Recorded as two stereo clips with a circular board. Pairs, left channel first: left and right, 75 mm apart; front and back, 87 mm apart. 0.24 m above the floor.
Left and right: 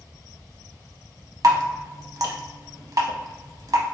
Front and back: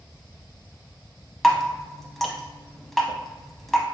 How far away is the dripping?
About 0.6 m.